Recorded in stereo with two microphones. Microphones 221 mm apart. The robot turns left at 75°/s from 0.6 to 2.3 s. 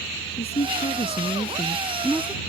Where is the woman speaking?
110° left; by 2.4 s 20° right.